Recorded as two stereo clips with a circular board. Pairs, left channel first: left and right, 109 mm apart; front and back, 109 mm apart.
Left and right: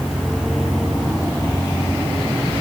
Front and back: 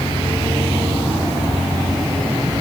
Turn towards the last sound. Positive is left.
No sound to turn to.